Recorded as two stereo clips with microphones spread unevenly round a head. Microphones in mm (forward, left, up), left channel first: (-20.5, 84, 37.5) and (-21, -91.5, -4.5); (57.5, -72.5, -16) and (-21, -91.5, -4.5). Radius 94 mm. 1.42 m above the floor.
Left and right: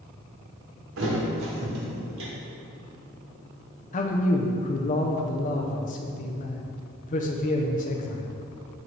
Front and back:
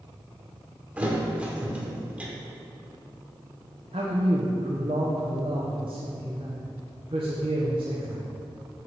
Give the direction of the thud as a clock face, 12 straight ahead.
3 o'clock.